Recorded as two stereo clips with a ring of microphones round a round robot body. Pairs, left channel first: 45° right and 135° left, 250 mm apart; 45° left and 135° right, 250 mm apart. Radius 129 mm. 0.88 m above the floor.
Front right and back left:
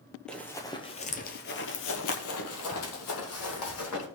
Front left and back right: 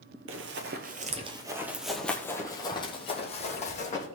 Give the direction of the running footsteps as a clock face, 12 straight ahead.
4 o'clock.